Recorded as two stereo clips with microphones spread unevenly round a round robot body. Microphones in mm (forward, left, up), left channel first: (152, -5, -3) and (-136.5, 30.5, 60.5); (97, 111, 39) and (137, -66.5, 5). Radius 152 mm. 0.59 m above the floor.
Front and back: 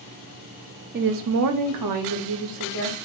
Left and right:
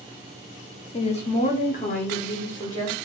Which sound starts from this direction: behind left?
A woman speaking, at 0.9 s.